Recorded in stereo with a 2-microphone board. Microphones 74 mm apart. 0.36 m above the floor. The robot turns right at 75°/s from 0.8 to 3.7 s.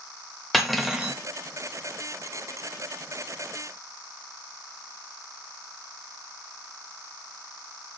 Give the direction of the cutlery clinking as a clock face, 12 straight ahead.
6 o'clock.